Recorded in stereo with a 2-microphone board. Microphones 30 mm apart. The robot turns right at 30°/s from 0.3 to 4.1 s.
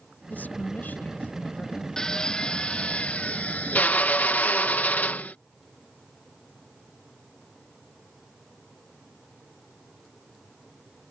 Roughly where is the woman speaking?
Left.